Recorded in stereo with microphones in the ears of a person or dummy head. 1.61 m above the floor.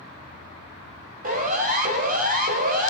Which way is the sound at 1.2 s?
55° right (ahead or behind).